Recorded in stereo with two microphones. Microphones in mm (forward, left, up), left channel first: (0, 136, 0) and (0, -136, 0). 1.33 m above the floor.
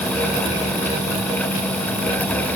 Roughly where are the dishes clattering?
No dishes clattering in this recording.